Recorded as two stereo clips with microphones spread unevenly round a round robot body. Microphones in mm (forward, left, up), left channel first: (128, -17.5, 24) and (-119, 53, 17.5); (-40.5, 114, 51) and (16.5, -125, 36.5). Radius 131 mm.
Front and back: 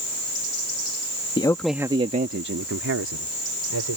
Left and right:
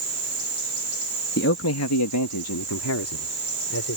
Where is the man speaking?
55° left; by 4.0 s 135° left.